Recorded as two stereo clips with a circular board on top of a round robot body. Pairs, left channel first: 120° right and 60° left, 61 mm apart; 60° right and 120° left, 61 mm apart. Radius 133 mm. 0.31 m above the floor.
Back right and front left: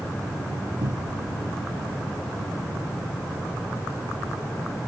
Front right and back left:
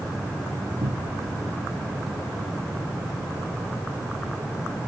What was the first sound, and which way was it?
A cupboard door, 80° left.